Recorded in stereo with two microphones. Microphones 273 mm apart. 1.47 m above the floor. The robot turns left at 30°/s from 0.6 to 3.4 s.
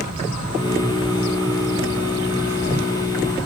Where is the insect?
105° left, 1.6 m; by 3.5 s 20° left, 1.6 m.